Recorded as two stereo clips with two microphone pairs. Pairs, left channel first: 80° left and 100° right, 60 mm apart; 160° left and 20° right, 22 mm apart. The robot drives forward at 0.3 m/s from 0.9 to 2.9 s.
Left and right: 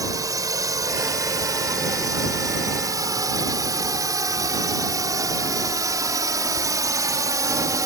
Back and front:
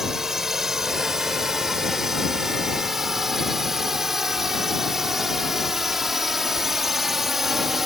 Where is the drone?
85° right; by 7.9 s 95° right.